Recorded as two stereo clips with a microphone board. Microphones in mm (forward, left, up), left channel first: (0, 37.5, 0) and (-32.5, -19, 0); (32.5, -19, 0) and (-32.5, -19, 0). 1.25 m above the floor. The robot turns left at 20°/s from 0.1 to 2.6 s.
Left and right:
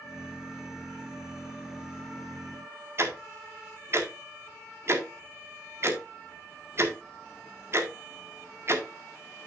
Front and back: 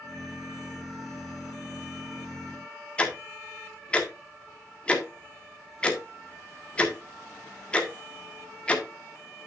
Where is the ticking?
75° right, 1.4 m.